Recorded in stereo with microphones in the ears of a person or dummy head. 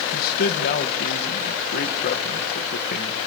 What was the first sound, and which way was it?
A man speaking, 45° left (ahead or behind).